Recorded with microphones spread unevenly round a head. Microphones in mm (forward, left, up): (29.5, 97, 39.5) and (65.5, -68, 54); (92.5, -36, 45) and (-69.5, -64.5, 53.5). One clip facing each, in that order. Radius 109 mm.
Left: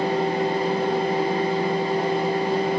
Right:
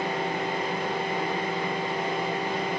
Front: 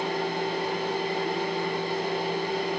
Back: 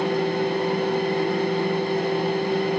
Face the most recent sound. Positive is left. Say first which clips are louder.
# left 7 dB, back 6 dB
turn(degrees=155)